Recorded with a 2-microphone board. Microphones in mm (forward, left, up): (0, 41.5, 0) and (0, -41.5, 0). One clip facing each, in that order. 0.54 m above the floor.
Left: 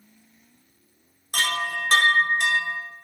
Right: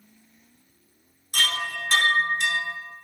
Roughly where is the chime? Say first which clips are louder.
Left 2 dB; left.